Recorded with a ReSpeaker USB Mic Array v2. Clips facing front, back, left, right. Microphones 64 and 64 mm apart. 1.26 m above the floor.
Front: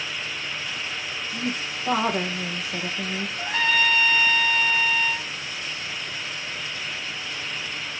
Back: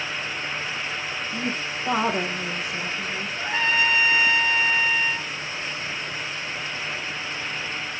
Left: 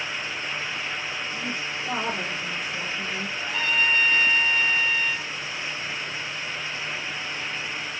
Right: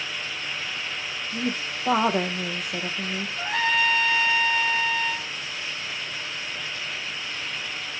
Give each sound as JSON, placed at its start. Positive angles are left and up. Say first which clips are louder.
{"t": 1.3, "sound": "a woman speaking", "louder": "front 1 dB, right 2 dB", "azimuth_deg": -115, "distance_m": 1.3}
{"t": 3.4, "sound": "a trumpet", "louder": "even, right 3 dB", "azimuth_deg": -120, "distance_m": 1.6}